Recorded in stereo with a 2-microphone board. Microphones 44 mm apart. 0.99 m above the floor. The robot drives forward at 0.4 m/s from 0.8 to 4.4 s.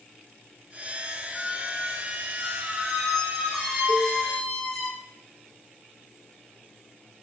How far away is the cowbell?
About 4 m.